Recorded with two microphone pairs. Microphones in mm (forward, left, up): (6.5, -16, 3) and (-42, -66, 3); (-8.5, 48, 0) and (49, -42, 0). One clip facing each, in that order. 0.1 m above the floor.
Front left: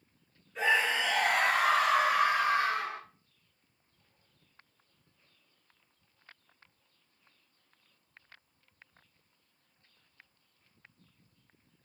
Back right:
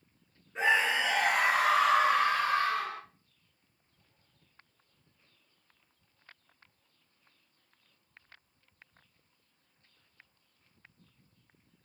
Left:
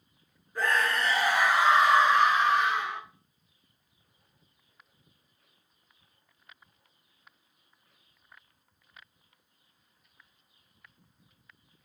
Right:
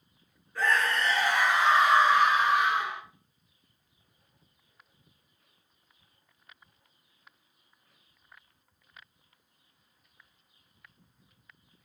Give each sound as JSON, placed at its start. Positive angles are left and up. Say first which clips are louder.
{"t": 0.6, "sound": "a scream", "louder": "back right 1 dB, even", "azimuth_deg": -175, "distance_m": 1.8}